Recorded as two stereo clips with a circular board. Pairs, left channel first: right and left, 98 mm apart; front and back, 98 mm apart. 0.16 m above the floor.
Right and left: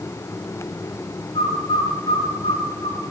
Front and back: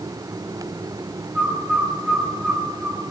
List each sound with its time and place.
1.4 s a bird: 95° right, 3.5 m